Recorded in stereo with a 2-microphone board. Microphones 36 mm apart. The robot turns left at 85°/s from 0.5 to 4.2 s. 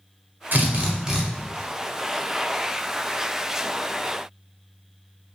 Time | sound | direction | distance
0.5 | a drill | 110° right | 1.0 m